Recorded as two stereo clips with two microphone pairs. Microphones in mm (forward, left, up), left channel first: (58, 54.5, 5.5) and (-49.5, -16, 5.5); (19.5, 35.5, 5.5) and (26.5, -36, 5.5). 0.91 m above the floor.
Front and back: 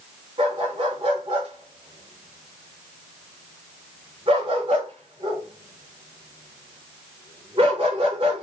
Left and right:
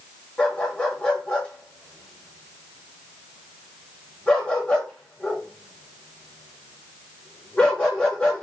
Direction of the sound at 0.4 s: 170° left.